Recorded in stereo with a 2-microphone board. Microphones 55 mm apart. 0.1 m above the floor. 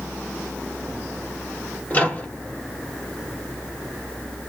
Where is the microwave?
25° left (ahead or behind), 1.9 m.